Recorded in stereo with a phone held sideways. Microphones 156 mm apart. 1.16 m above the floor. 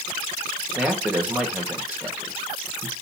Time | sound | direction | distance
0.8 | a man speaking | 10° right (ahead or behind) | 1.5 m